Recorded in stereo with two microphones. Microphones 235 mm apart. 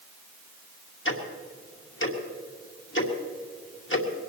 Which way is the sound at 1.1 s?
55° left (ahead or behind).